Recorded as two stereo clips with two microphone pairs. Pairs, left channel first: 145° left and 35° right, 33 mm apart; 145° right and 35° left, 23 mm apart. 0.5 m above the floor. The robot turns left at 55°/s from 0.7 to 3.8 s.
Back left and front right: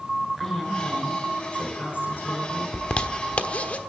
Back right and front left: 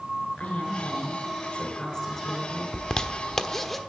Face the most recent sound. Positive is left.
turn(degrees=135)